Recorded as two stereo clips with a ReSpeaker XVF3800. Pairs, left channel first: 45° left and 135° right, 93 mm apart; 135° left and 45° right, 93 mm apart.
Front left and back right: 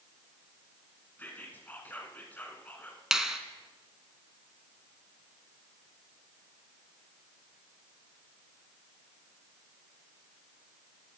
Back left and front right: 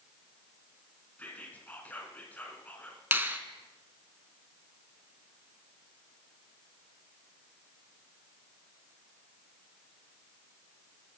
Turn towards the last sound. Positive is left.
turn(degrees=-60)